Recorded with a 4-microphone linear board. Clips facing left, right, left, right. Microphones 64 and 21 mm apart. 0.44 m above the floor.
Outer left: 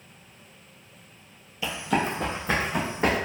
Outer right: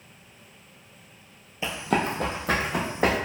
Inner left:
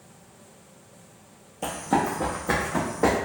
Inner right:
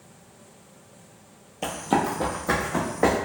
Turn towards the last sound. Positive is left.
turn(degrees=-75)  # may be behind; listen again after turning